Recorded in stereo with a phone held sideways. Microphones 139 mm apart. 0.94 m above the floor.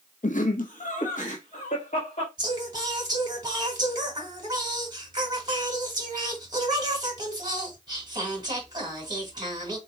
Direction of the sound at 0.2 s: 60° left (ahead or behind).